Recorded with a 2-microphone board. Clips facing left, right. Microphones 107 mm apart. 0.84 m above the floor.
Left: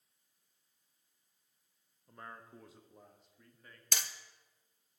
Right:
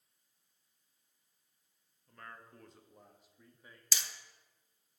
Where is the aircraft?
I don't hear an aircraft.